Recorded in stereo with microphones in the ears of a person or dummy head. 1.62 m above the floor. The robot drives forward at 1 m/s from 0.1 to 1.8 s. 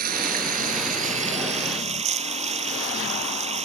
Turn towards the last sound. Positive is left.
turn(degrees=-30)  # may be behind; listen again after turning